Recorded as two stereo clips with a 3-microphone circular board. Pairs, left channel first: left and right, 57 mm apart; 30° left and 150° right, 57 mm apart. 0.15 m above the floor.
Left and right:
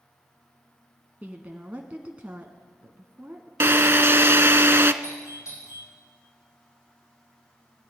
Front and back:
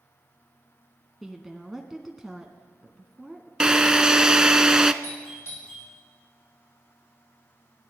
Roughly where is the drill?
Right.